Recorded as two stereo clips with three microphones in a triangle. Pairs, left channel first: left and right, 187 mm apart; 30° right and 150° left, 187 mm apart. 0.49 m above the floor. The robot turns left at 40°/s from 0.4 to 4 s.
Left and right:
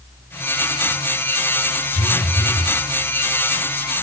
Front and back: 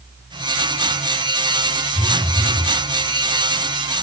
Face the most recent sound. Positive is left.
turn(degrees=-55)